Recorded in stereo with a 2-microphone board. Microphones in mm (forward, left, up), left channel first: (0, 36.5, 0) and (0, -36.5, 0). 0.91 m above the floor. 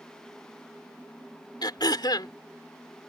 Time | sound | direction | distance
1.6 | throat clearing | 75° left (ahead or behind) | ?